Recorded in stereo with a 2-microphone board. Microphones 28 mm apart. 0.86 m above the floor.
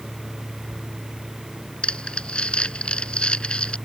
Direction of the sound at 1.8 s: 35° left (ahead or behind).